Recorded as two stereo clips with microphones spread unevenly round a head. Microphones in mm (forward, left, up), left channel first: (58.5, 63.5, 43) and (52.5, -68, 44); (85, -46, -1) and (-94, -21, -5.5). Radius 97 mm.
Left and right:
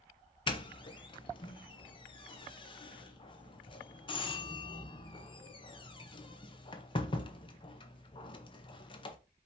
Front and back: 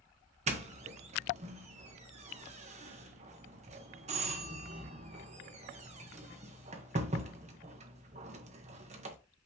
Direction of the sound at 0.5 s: 130° left.